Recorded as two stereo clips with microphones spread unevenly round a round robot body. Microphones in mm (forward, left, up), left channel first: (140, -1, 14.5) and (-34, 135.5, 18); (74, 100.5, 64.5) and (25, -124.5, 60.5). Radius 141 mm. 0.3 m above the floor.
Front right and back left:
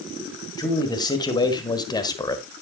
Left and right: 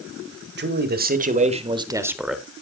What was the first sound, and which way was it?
A man speaking, 105° right.